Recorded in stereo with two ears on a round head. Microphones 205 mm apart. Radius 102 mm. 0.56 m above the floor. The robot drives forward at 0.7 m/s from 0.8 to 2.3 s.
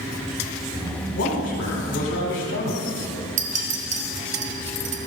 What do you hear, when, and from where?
1.1 s a man speaking: 55° left (ahead or behind), 1.8 m; by 3.0 s 60° left (ahead or behind), 1.7 m
3.4 s a clink: 35° right (ahead or behind), 0.9 m